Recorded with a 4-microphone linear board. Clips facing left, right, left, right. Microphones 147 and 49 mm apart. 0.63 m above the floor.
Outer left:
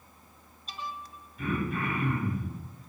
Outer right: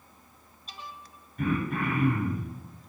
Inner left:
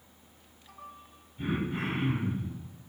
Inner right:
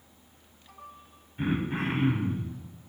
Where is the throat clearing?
60° right (ahead or behind), 2.5 m.